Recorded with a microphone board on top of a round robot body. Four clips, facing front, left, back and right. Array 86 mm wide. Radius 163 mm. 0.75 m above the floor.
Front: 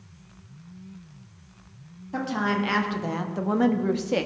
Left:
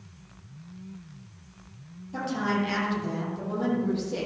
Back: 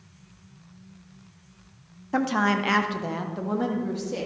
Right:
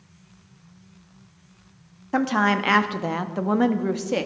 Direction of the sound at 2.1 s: 120° right.